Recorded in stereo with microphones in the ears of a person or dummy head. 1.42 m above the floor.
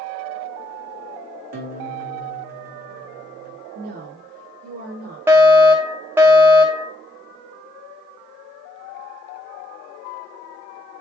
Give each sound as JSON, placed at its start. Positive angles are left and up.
{"t": 1.5, "sound": "a guitar", "side_deg": -45, "distance_m": 1.3}
{"t": 3.8, "sound": "a woman speaking", "side_deg": -50, "distance_m": 3.5}
{"t": 5.3, "sound": "a fire alarm", "side_deg": -10, "distance_m": 1.2}